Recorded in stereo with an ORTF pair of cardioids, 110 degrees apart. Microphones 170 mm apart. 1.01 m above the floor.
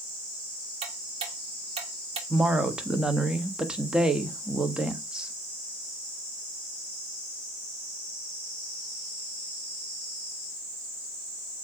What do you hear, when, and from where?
0.8 s ticking: 35° right, 2 m
2.3 s a woman speaking: 5° right, 1.3 m